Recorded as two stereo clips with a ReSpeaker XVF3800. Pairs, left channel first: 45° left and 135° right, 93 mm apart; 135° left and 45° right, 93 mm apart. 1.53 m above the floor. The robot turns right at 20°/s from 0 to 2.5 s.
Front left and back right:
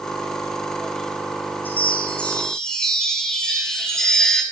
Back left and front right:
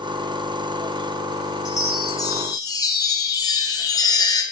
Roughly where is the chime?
Left.